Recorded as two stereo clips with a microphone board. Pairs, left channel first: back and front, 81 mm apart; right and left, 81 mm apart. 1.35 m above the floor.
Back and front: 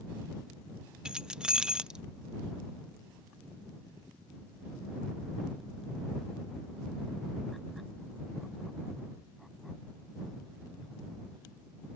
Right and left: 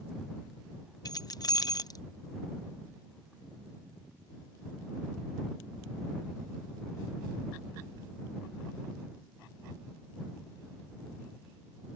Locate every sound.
1.1 s keys jangling: 75° right